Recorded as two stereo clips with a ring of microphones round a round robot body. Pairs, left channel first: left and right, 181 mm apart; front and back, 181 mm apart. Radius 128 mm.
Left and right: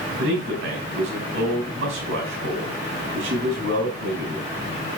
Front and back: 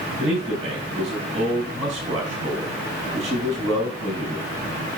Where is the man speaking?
115° right, 4.5 m.